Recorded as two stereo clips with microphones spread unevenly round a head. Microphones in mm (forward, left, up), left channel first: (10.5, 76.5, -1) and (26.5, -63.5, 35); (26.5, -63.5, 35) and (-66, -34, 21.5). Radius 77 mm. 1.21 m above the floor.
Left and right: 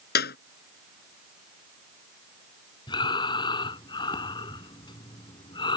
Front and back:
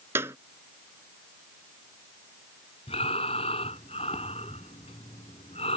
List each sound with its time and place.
0.1 s a clap: 85° left
2.9 s breathing: 35° left